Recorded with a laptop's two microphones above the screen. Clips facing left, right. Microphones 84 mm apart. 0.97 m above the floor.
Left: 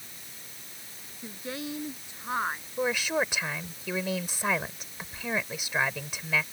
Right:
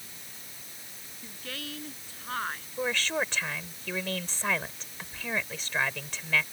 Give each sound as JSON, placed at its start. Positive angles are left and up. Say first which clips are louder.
{"t": 1.2, "sound": "a woman speaking", "louder": "left 5 dB", "side_deg": 20}
{"t": 2.8, "sound": "a woman speaking", "louder": "left 2 dB", "side_deg": 10}